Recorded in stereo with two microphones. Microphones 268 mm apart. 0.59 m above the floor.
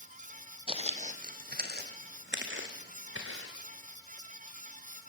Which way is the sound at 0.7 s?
20° right (ahead or behind).